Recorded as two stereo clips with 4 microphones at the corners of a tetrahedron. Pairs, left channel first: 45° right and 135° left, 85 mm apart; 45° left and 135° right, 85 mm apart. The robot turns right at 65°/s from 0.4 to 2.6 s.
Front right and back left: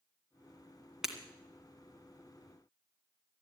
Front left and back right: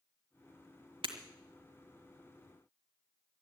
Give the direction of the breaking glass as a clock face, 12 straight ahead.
5 o'clock.